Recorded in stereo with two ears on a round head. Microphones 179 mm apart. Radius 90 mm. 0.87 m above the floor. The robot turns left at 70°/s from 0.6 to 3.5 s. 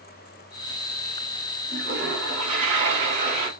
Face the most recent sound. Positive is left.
turn(degrees=-155)